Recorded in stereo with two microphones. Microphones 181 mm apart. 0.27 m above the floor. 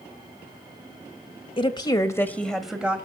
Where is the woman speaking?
30° left (ahead or behind), 1.5 m; by 3.0 s 10° right (ahead or behind), 1.5 m.